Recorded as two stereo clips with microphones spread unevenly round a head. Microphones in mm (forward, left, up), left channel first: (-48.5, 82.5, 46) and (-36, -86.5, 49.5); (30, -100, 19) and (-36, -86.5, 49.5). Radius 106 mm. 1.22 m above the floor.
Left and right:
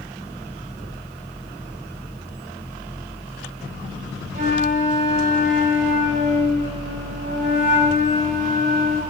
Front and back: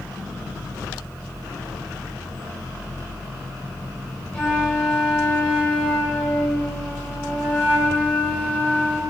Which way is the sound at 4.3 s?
80° right.